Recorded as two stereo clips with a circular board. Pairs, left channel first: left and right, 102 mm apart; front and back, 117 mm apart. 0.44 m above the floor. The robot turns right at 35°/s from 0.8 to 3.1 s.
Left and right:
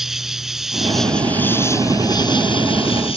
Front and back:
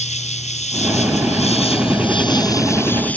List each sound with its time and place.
0.0 s an insect: 5° right; by 3.2 s 75° left